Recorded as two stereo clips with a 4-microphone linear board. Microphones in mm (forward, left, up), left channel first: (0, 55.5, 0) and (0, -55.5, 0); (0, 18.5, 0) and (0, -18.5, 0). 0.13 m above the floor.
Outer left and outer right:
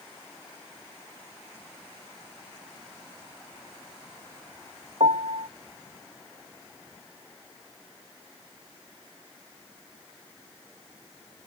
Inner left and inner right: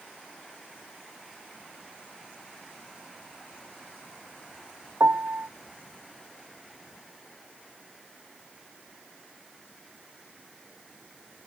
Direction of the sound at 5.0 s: 75° right (ahead or behind).